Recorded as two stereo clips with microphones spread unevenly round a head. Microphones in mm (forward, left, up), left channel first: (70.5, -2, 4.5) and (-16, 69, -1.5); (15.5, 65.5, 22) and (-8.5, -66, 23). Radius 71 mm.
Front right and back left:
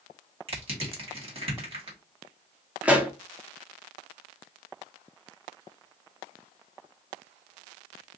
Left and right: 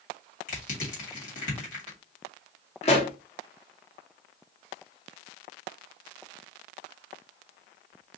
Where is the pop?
65° left, 0.8 m.